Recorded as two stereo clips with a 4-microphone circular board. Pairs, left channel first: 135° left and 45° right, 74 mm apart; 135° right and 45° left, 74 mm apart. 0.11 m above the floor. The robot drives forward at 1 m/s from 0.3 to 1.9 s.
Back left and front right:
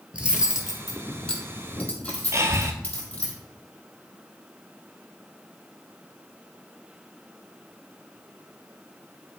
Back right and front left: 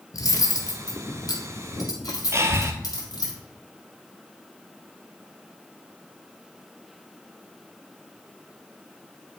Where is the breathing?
Straight ahead, 1.0 m.